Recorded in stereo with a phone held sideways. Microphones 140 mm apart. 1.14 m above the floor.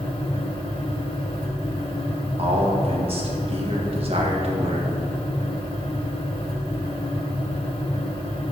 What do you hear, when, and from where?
0.0 s a fan: 40° left (ahead or behind), 1.1 m
2.4 s a man speaking: 45° right (ahead or behind), 1.6 m